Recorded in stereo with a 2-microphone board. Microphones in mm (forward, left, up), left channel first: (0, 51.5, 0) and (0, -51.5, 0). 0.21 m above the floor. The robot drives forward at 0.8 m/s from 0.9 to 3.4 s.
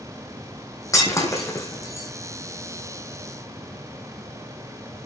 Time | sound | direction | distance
0.9 | breaking glass | 35° left (ahead or behind) | 5 m